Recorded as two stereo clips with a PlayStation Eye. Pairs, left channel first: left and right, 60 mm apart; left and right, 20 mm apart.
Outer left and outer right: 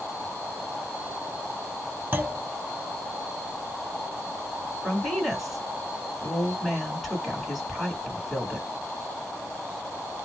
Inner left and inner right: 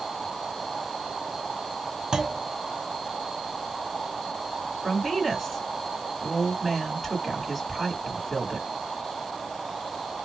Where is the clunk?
35° right (ahead or behind), 0.5 m.